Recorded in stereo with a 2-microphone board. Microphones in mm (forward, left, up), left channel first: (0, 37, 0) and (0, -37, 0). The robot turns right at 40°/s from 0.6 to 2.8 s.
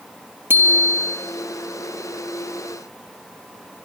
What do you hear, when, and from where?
0.5 s a bicycle bell: 30° right (ahead or behind), 4 m; by 1.2 s 5° right (ahead or behind), 4 m